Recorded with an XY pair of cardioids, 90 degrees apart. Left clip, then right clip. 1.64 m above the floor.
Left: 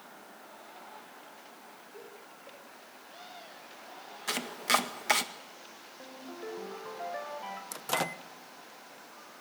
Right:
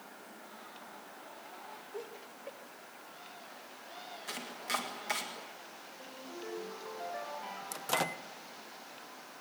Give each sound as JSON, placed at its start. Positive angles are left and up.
{"t": 1.9, "sound": "laughter", "azimuth_deg": -50, "distance_m": 7.5}
{"t": 4.3, "sound": "chopping", "azimuth_deg": 70, "distance_m": 1.8}
{"t": 6.0, "sound": "a ringtone", "azimuth_deg": 35, "distance_m": 6.0}
{"t": 7.7, "sound": "a microwave", "azimuth_deg": 15, "distance_m": 0.9}